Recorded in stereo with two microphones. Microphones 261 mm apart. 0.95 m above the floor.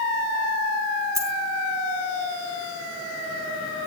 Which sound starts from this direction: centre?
A dropped coin, at 1.1 s.